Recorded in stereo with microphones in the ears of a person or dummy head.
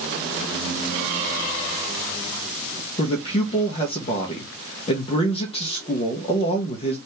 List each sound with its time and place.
3.0 s a man speaking: 25° left (ahead or behind), 0.8 m